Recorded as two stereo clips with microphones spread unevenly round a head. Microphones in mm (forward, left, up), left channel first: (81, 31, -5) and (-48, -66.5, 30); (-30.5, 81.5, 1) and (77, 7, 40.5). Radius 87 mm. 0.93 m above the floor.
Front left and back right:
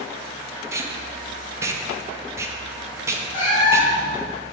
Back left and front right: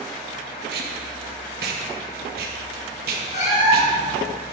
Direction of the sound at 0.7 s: 65° right.